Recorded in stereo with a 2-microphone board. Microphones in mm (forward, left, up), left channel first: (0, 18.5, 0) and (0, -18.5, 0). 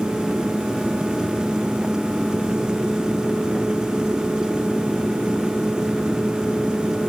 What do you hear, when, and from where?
Only background noise.